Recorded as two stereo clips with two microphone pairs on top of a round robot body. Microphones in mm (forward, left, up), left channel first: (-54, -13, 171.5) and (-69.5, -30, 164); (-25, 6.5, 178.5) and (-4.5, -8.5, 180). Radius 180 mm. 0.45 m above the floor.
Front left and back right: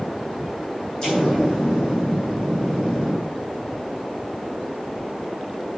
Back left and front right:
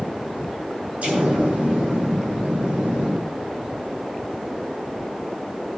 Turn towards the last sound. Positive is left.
turn(degrees=-10)